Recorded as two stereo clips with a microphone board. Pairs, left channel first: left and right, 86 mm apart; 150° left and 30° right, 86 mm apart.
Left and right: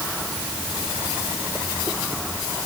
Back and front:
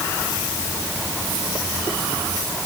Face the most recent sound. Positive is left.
No sound to turn to.